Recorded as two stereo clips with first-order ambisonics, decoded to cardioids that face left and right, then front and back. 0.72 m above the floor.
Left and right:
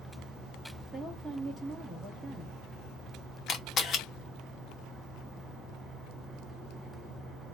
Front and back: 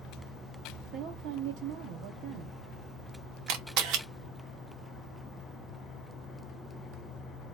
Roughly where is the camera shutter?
Behind left.